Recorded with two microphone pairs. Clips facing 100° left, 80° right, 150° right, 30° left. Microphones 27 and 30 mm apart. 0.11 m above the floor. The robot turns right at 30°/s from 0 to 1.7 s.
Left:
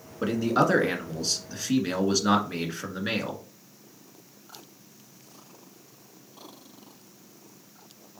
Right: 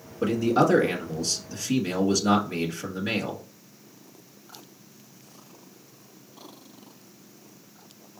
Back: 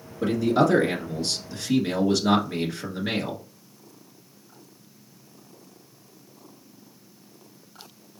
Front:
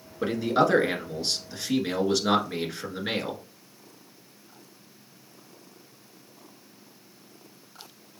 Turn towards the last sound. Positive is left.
turn(degrees=100)